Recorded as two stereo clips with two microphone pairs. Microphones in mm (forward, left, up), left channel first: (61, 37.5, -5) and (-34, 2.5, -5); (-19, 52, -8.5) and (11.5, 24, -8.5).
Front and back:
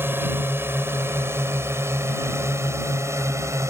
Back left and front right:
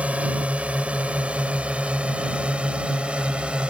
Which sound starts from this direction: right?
A drone, at 0.0 s.